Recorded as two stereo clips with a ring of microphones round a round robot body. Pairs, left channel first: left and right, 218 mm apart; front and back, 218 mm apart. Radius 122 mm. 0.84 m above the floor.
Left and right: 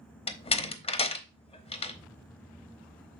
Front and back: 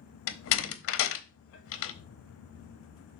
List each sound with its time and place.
0.3 s a door slam: 25° left, 0.9 m